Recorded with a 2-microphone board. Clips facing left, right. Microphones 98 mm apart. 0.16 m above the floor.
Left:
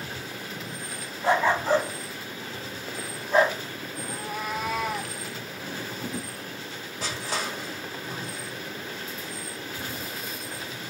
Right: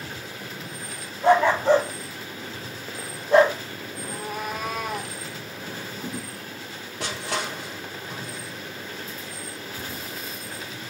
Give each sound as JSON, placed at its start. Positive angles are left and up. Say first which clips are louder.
{"t": 1.2, "sound": "a dog barking", "louder": "right 5 dB", "side_deg": -60, "distance_m": 4.0}
{"t": 4.0, "sound": "a cat meowing", "louder": "right 2 dB", "side_deg": -55, "distance_m": 1.1}
{"t": 7.0, "sound": "crushing", "louder": "right 2 dB", "side_deg": -70, "distance_m": 2.0}